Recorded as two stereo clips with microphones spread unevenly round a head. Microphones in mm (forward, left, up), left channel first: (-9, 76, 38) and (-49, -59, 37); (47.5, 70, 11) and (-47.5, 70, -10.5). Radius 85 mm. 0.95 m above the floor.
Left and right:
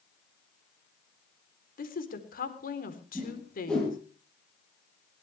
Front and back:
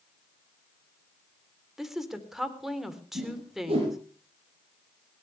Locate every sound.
1.8 s a woman speaking: 95° left, 3.5 m
3.1 s a whoosh: 160° left, 9.5 m